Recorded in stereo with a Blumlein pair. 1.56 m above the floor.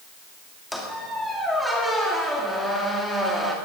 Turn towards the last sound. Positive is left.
turn(degrees=0)